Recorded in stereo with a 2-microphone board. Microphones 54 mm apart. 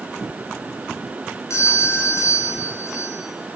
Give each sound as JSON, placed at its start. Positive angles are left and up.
{"t": 1.5, "sound": "a doorbell", "side_deg": 60, "distance_m": 4.0}